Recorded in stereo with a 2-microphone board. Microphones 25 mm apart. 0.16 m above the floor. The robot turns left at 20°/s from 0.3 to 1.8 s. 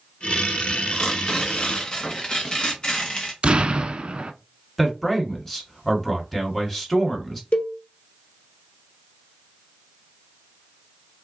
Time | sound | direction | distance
0.9 | tearing paper | 35° left (ahead or behind) | 1.3 m
3.4 | an explosion | 45° right (ahead or behind) | 0.5 m
4.8 | a man speaking | 15° left (ahead or behind) | 1.5 m
7.5 | a cowbell | 60° left (ahead or behind) | 1.4 m